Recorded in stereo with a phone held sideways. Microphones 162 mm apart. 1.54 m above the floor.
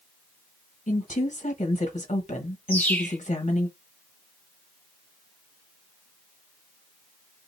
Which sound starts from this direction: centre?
A bird, at 2.7 s.